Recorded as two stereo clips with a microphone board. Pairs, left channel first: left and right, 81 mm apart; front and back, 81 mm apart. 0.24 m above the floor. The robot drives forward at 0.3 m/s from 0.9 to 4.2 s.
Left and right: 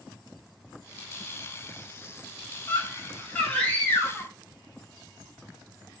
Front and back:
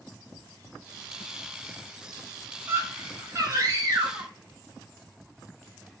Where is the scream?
145° left, 1.1 m; by 4.3 s 160° left, 1.4 m.